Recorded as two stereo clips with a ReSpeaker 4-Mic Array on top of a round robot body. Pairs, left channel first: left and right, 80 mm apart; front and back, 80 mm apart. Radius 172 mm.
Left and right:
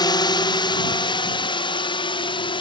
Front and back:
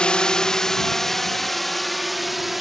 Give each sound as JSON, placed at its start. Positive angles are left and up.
{"t": 0.0, "sound": "a drone", "azimuth_deg": 75}